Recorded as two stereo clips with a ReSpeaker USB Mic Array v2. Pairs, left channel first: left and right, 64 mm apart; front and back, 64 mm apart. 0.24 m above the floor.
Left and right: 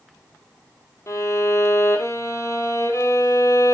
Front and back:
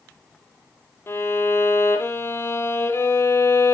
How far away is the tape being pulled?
No tape being pulled in this recording.